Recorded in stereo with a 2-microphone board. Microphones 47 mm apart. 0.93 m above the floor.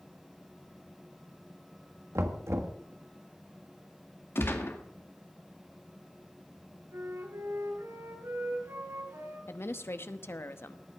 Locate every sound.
2.1 s knocking: 70° right (ahead or behind), 1.4 m
4.3 s a gunshot: 55° left (ahead or behind), 1.9 m
6.9 s a flute: 90° right, 9 m
9.5 s a woman speaking: 55° left (ahead or behind), 0.9 m